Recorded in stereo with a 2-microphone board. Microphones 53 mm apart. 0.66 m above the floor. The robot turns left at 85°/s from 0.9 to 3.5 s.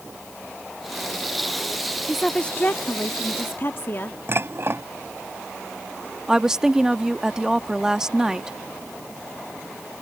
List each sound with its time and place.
2.1 s a woman speaking: 170° right; by 4.2 s 70° left
4.3 s dishes clattering: 50° right (ahead or behind)
6.3 s a woman speaking: 10° right (ahead or behind)